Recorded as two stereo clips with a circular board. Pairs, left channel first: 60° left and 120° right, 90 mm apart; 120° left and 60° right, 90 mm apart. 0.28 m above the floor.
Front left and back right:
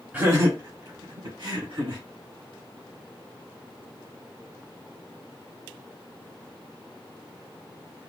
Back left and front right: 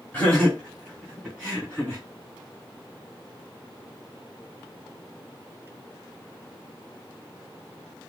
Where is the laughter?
Straight behind, 1.9 m; by 2.0 s 130° right, 3.5 m.